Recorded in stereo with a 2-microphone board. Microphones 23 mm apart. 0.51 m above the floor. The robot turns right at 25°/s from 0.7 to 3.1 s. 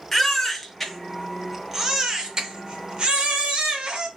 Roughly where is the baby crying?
Behind.